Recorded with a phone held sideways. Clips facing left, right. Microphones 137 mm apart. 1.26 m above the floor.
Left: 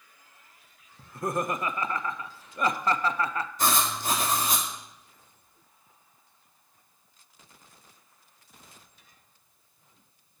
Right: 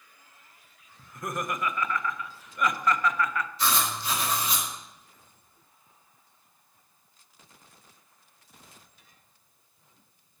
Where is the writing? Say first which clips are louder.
Left 2 dB; 45° left (ahead or behind), 2.0 m.